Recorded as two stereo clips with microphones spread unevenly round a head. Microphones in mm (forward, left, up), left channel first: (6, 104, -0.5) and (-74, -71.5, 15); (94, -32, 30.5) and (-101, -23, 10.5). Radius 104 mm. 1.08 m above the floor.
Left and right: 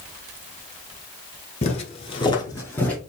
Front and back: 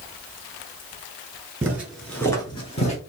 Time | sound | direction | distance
1.6 | footsteps | 100° left | 1.2 m